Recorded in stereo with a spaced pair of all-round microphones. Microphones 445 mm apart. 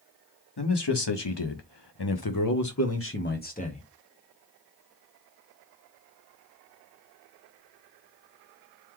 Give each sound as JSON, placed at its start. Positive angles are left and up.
{"t": 0.6, "sound": "a man speaking", "side_deg": 65, "distance_m": 1.2}